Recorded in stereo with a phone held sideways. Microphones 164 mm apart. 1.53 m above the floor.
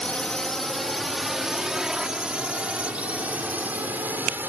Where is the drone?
5° left (ahead or behind); by 4.5 s 10° right (ahead or behind).